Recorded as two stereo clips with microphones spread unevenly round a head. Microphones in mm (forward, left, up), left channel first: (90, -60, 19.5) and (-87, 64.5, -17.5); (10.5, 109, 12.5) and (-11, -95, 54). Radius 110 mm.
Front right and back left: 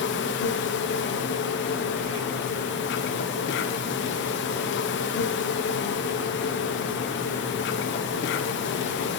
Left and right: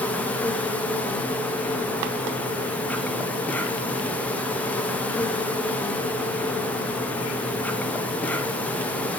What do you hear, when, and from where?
0.0 s an insect: 5° left, 2 m